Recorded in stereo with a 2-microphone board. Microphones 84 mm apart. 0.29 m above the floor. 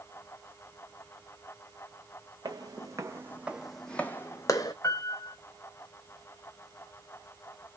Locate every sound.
2.5 s footsteps: 50° right (ahead or behind), 0.9 m; by 4.7 s 45° left (ahead or behind), 0.8 m
4.8 s a piano: 40° left (ahead or behind), 1.0 m